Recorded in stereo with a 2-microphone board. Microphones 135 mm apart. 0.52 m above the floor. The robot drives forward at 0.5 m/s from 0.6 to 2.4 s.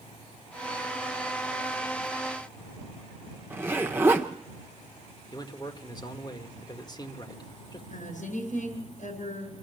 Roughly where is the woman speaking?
Left.